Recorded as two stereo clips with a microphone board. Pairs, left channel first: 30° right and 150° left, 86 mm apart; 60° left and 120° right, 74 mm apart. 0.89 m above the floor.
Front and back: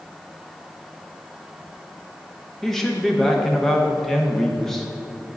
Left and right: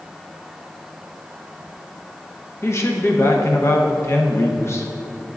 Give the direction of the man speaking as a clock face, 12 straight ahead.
10 o'clock.